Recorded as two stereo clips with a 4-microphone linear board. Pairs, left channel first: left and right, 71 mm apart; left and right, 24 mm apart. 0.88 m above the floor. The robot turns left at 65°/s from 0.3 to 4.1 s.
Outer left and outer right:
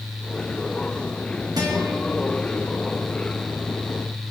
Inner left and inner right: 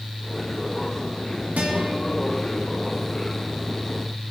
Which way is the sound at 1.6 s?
75° right (ahead or behind).